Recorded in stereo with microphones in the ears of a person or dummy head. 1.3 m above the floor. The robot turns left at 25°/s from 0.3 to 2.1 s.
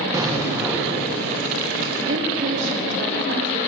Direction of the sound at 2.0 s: 70° right (ahead or behind).